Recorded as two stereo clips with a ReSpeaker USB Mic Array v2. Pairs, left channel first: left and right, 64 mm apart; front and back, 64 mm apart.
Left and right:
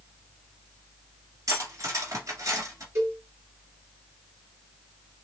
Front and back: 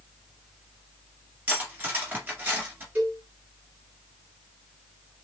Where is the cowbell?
125° right, 3 m.